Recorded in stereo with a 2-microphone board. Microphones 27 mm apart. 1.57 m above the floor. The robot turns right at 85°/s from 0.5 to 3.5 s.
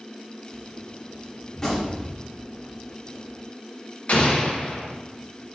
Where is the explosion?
50° left (ahead or behind), 0.8 m.